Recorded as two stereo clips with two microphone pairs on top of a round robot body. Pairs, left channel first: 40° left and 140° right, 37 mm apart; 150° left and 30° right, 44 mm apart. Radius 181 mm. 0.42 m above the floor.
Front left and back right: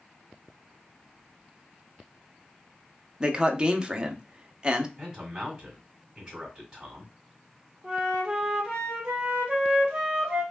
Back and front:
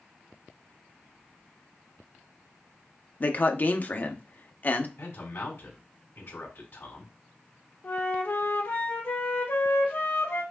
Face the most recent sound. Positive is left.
turn(degrees=155)